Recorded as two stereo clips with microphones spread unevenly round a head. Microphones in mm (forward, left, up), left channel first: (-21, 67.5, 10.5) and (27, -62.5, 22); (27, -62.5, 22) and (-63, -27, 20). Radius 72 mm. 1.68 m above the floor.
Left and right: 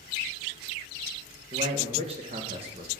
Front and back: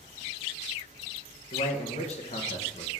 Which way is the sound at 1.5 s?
25° right.